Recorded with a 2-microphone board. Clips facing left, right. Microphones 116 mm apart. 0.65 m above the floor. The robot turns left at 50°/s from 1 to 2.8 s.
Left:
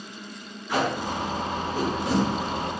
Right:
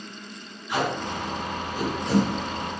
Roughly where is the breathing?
I don't hear breathing.